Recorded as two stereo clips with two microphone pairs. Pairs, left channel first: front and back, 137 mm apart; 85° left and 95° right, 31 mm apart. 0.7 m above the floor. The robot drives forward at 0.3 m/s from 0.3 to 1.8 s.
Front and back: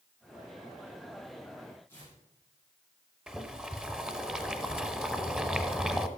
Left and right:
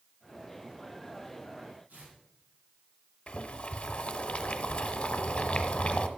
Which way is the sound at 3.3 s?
100° left.